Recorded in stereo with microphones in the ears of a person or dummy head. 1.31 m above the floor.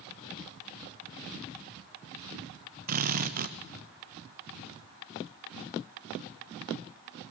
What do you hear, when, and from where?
2.9 s a drill: 50° right (ahead or behind), 1.2 m